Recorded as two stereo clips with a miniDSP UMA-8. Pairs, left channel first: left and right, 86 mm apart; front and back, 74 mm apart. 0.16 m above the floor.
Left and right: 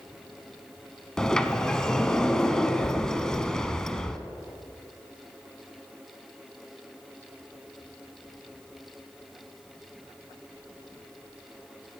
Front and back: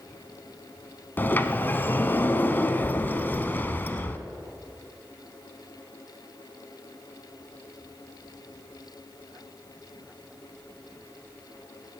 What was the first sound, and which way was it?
A sliding door, 15° left.